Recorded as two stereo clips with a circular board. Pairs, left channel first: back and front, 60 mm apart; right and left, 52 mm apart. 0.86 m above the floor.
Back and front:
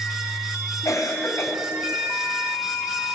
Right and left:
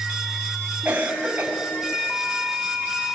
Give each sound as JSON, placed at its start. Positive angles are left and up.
{"t": 0.8, "sound": "a cough", "azimuth_deg": 155, "distance_m": 4.5}